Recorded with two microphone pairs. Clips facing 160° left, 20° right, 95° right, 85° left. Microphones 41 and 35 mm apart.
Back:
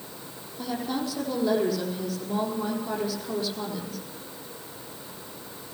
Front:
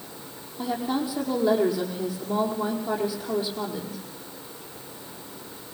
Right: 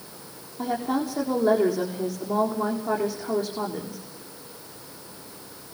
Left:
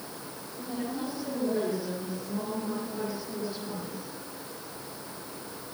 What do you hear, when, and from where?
0.6 s a woman speaking: 95° right, 5 m